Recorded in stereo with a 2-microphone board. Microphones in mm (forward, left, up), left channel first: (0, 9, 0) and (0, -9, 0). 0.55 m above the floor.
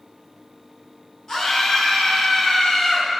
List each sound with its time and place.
1.3 s a scream: 35° left (ahead or behind), 5 m; by 3.1 s 50° left (ahead or behind), 5 m